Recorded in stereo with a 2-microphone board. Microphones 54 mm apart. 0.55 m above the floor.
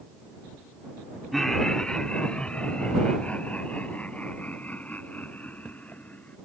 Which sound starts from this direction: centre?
Laughter, at 1.3 s.